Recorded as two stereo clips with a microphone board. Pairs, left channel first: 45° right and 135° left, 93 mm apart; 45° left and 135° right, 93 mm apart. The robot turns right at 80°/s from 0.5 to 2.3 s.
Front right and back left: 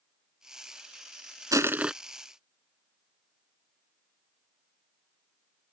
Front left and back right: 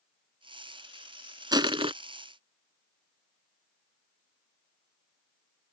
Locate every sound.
1.5 s crushing: 175° right; by 1.9 s 145° right